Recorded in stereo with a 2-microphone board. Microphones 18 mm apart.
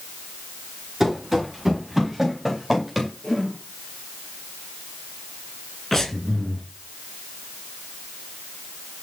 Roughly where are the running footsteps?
Centre.